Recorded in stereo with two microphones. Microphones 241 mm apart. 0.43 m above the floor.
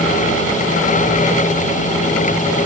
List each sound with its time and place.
Only background noise.